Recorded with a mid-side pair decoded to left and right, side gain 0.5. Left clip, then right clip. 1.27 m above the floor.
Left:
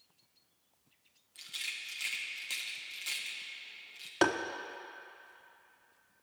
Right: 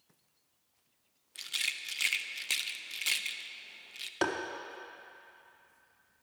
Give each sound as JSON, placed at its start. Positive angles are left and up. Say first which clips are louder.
{"t": 1.4, "sound": "a rattle", "louder": "right 5 dB", "azimuth_deg": -55, "distance_m": 0.5}
{"t": 4.2, "sound": "tapping", "louder": "left 3 dB", "azimuth_deg": 20, "distance_m": 0.7}